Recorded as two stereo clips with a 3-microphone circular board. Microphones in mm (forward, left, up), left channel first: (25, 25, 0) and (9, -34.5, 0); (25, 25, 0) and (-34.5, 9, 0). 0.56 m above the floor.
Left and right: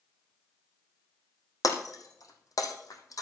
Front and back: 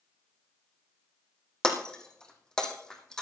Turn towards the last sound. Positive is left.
turn(degrees=95)